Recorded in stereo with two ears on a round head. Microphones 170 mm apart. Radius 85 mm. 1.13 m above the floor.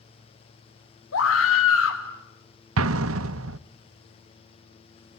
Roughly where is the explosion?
Right.